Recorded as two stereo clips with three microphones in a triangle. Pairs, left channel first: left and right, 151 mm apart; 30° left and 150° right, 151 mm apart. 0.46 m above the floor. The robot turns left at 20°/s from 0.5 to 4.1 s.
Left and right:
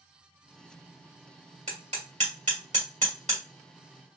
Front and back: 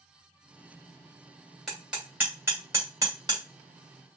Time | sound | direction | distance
1.7 | hammering | 60° right | 1.6 m